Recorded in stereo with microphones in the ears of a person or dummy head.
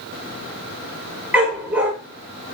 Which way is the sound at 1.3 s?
15° right (ahead or behind).